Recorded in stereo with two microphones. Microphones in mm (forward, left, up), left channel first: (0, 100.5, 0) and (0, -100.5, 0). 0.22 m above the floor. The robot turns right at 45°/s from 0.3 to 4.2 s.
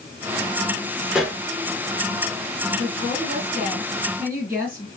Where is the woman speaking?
75° right, 2.5 m; by 4.9 s 15° right, 2.5 m.